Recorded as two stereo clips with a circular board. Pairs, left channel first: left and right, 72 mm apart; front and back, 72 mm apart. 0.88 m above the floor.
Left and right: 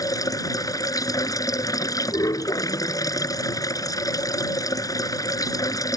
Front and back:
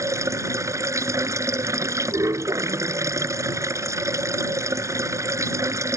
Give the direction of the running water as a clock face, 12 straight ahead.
8 o'clock.